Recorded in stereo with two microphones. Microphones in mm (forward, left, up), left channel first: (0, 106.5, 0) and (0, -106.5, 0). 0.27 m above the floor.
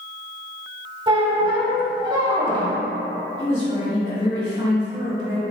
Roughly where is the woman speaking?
Right.